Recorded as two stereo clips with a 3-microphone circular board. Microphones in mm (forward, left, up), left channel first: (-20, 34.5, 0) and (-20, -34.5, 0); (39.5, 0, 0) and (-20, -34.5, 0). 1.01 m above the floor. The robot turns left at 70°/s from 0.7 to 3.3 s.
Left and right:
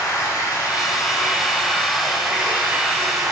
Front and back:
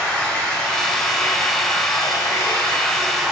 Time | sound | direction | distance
0.0 | running water | 105° left | 0.8 m